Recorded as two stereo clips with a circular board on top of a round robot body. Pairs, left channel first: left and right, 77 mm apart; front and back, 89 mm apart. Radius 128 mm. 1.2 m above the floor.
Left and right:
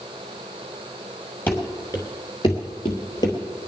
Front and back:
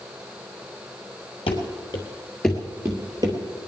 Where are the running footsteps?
25° left, 1.8 m; by 3.4 s 135° left, 1.8 m.